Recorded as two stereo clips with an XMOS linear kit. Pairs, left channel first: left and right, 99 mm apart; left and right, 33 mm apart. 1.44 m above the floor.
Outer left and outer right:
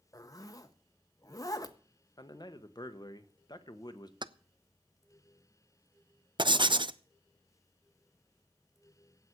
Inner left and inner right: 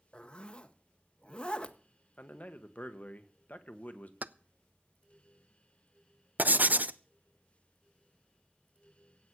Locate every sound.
0.1 s a zipper: 35° left (ahead or behind), 1.0 m
2.2 s a man speaking: 45° left (ahead or behind), 1.3 m
4.2 s keys jangling: 50° right (ahead or behind), 0.5 m
6.4 s writing: 55° right (ahead or behind), 0.6 m